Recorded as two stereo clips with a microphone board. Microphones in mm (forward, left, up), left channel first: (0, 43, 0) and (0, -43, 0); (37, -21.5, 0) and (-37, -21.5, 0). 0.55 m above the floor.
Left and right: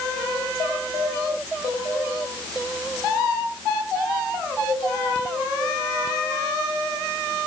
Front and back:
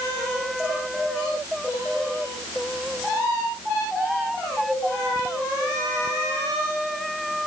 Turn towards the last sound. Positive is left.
No sound to turn to.